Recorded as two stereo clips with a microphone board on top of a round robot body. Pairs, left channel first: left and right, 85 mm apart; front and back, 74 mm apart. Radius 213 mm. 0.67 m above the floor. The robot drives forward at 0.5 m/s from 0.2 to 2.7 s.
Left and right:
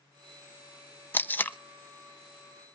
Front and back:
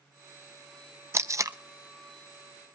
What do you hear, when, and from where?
1.1 s tape being pulled: 145° left, 1.0 m; by 1.6 s 155° left, 1.1 m